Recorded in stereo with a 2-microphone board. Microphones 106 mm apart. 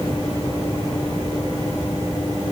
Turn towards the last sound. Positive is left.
No sound to turn to.